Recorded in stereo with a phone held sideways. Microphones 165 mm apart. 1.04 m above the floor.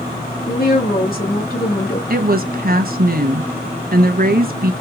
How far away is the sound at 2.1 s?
About 0.8 m.